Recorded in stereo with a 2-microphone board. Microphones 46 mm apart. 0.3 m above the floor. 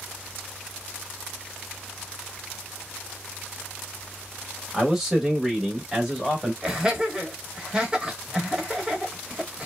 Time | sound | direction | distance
4.7 | a man speaking | 5° right (ahead or behind) | 1.0 m
6.6 | laughter | 15° right (ahead or behind) | 1.0 m